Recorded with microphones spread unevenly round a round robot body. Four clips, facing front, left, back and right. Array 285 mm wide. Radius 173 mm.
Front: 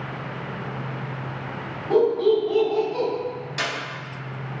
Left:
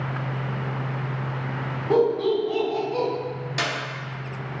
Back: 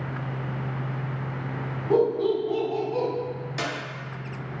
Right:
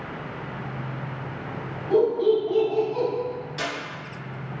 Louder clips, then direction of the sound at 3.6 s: Left 4 dB, front 2 dB; 75° left.